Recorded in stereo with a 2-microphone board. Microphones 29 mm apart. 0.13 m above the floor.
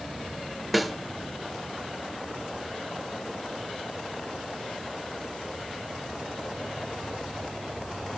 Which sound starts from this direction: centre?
A snare drum, at 0.7 s.